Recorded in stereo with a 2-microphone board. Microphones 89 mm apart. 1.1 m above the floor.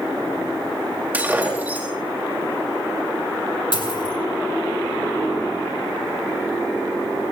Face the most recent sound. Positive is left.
turn(degrees=60)  # may be behind; listen again after turning